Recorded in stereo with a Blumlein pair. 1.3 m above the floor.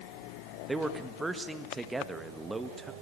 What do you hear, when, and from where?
0.7 s a man speaking: 10° right, 1.7 m